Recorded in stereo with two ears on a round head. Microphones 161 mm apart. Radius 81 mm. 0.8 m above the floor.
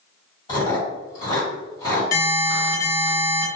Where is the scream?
No scream in this recording.